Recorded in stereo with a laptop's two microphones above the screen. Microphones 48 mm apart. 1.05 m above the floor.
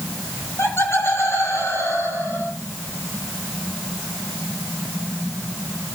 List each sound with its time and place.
0.4 s laughter: 60° left (ahead or behind), 8 m; by 2.5 s 70° left (ahead or behind), 10 m